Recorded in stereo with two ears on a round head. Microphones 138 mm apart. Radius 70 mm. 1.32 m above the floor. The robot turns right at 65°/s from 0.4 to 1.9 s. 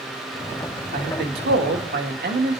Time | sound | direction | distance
0.9 | a man speaking | 125° right | 1.9 m